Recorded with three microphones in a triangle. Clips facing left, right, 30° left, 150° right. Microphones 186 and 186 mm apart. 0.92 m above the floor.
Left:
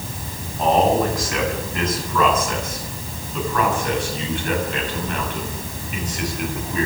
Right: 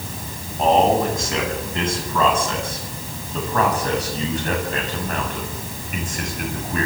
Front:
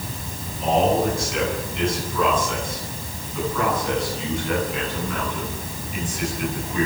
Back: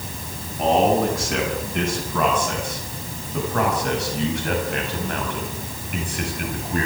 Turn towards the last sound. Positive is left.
turn(degrees=-125)